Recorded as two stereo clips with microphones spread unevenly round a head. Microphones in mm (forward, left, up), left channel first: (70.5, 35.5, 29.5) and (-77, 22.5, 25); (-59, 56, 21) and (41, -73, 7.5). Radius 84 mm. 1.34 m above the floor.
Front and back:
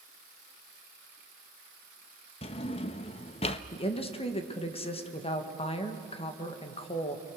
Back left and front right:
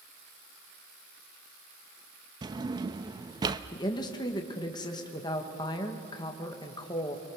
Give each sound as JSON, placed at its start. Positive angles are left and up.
{"t": 2.4, "sound": "a drawer", "azimuth_deg": 10, "distance_m": 0.6}
{"t": 3.7, "sound": "a woman speaking", "azimuth_deg": 60, "distance_m": 1.8}